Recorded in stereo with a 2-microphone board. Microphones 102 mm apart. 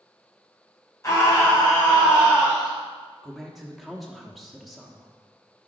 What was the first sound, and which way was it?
A scream, 30° left (ahead or behind).